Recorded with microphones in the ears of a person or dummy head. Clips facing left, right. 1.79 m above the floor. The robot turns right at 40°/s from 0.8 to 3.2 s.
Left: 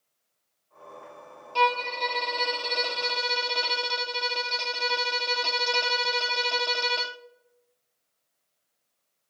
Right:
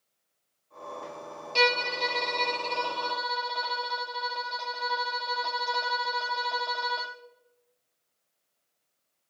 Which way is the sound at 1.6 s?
25° right.